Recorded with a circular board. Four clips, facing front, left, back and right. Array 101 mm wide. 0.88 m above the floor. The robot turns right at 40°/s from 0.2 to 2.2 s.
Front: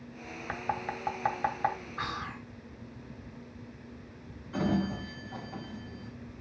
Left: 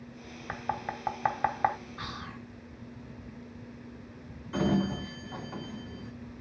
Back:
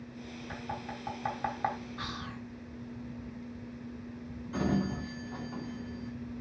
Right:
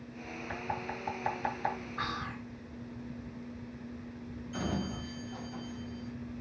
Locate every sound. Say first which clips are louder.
0.5 s knocking: left 4 dB, front 7 dB; 40° left, 1.2 m; by 1.8 s 95° left, 1.2 m
2.0 s whispering: right 4 dB, front 3 dB; 35° right, 1.0 m; by 2.5 s 25° right, 1.0 m
4.5 s a sliding door: left 8 dB, front 1 dB; 95° left, 3 m